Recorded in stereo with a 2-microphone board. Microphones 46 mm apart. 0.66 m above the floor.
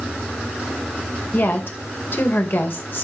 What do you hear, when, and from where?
1.3 s a woman speaking: 60° left (ahead or behind), 2.5 m